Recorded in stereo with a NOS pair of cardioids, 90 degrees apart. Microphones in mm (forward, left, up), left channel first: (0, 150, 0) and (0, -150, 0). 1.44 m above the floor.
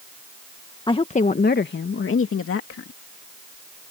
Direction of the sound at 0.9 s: 15° left.